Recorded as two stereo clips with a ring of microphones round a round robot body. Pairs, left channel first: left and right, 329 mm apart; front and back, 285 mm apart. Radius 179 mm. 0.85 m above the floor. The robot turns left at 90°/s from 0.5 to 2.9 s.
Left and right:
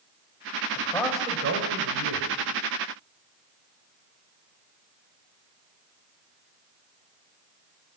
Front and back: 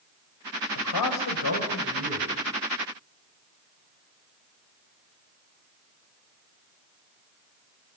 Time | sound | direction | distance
0.8 | a man speaking | 30° left | 4 m